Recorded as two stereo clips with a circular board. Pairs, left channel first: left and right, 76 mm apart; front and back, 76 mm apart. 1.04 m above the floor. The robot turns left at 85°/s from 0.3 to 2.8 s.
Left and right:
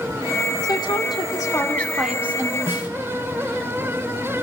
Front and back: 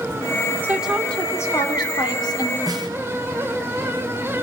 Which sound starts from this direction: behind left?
A woman speaking, at 0.6 s.